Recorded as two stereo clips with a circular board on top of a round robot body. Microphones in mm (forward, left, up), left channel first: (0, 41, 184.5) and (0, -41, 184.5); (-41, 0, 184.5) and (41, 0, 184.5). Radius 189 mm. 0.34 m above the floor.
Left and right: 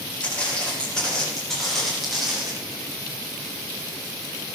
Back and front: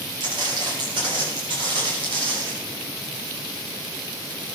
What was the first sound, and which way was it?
Footsteps, 15° left.